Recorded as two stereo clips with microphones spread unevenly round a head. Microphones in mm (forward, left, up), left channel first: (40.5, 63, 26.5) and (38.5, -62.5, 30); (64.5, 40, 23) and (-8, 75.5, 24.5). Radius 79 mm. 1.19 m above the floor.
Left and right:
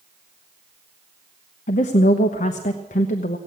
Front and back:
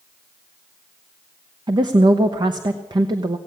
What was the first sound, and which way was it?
A woman speaking, 120° left.